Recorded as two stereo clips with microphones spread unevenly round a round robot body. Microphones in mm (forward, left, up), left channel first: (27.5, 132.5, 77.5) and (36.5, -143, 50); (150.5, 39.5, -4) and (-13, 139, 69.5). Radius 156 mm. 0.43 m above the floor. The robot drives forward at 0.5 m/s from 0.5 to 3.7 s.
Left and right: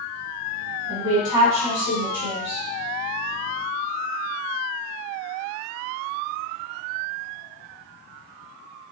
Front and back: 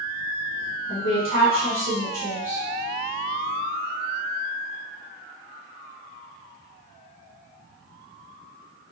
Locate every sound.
0.9 s a woman speaking: 140° left, 2.0 m; by 2.6 s 155° left, 2.5 m